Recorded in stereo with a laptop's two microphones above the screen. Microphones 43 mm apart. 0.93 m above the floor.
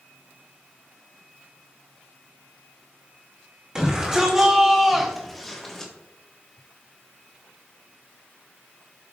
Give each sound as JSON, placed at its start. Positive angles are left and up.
{"t": 3.8, "sound": "a shout", "side_deg": -20, "distance_m": 2.5}